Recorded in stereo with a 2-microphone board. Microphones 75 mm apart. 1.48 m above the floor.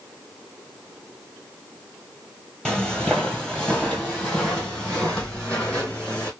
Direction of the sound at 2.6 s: 10° left (ahead or behind).